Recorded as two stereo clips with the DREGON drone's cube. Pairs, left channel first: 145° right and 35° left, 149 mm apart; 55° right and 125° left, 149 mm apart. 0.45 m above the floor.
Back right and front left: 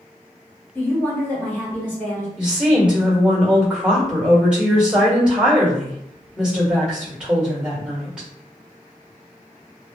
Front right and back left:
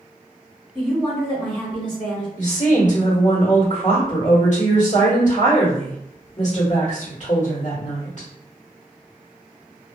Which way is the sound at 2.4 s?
45° right.